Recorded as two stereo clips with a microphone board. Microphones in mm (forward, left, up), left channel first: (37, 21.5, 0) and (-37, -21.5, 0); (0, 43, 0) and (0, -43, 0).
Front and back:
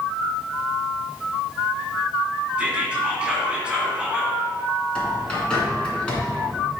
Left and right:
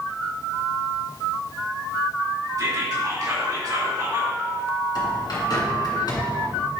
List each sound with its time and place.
2.6 s whispering: 80° right, 1.9 m
5.0 s a bird: 105° left, 2.5 m